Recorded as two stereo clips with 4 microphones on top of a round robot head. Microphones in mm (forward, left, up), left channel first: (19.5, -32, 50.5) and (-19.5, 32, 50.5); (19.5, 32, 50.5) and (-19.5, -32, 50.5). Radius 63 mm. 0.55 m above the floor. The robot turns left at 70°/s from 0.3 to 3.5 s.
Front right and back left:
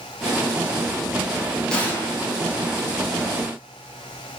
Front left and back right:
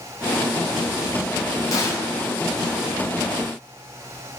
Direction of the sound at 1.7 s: 20° left.